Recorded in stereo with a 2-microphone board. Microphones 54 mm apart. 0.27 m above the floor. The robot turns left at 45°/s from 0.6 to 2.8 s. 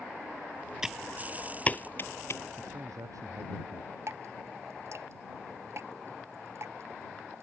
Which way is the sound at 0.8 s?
10° right (ahead or behind).